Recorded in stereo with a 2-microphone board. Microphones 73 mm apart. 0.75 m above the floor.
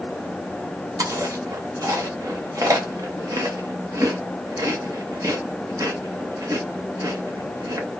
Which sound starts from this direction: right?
Chewing, at 1.0 s.